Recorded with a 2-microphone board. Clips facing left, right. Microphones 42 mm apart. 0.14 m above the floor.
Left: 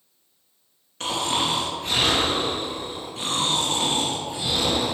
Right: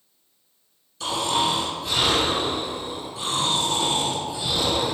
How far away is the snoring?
About 2 m.